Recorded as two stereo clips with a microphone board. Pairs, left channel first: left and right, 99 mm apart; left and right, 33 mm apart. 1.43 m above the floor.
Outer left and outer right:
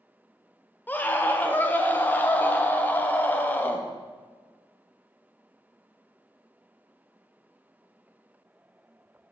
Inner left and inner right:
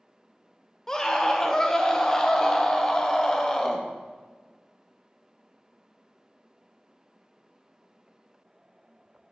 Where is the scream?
20° left (ahead or behind), 1.0 m.